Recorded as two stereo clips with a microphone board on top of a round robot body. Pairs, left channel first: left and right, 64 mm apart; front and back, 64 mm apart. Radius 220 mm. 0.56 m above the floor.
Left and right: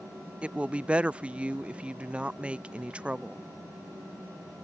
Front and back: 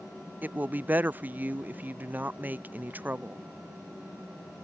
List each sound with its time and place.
0.4 s a woman speaking: 145° right